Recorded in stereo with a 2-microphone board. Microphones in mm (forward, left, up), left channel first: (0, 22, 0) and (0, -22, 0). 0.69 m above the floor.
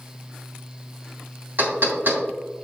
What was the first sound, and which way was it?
Knocking, 50° right (ahead or behind).